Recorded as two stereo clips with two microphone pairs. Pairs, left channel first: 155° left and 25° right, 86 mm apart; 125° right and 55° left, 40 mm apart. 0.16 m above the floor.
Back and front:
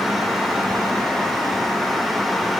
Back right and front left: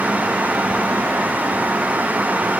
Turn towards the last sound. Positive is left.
No sound to turn to.